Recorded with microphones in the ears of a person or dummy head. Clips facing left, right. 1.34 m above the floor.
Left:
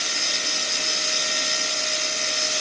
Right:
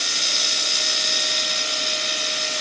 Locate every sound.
Only background noise.